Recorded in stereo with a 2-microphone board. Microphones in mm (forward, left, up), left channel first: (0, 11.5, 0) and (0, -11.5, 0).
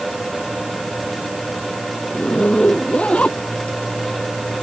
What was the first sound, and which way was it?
A zipper, 65° left (ahead or behind).